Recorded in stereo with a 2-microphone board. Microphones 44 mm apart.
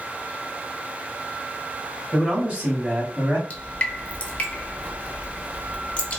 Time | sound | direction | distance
2.1 | a man speaking | 15° right (ahead or behind) | 1.5 m
3.5 | dripping | 25° left (ahead or behind) | 0.6 m